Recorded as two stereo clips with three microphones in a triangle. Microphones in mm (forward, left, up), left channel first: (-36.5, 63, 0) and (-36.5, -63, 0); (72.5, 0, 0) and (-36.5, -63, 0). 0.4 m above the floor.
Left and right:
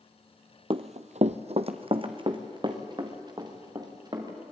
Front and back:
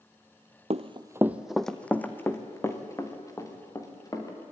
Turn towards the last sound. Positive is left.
turn(degrees=-35)